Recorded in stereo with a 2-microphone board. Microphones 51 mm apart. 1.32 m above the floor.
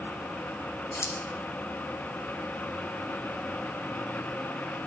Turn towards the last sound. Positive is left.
turn(degrees=70)  # may be behind; listen again after turning